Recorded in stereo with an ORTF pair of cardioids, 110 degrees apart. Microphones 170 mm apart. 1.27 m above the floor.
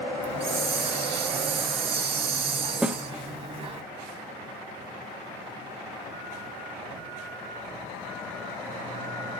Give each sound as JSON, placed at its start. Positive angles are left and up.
{"t": 0.2, "sound": "a hiss", "azimuth_deg": -35, "distance_m": 1.9}
{"t": 2.8, "sound": "a snare drum", "azimuth_deg": -5, "distance_m": 1.0}